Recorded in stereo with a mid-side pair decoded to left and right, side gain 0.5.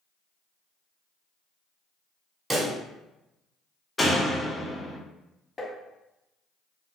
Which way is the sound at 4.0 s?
15° left.